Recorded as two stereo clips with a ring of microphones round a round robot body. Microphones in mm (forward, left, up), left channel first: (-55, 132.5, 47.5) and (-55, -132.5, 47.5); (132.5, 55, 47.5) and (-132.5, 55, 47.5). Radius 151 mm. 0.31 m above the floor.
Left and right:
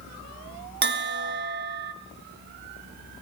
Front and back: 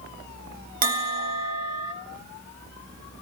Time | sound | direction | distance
0.8 | a bell | 130° right | 2.0 m